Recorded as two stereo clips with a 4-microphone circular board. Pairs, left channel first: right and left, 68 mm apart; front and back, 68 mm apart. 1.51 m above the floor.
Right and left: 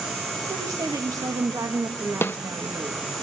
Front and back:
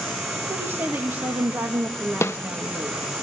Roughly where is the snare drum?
Ahead right.